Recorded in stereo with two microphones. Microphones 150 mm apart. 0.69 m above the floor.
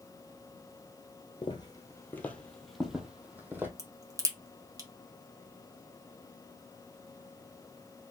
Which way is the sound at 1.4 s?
35° left (ahead or behind).